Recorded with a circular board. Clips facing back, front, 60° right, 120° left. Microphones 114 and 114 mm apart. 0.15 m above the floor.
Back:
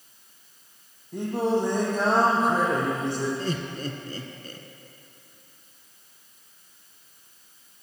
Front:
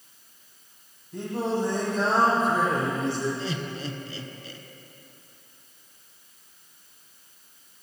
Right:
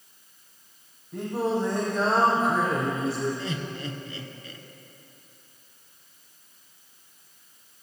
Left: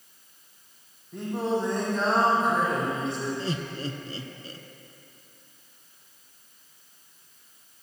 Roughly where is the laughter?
Behind.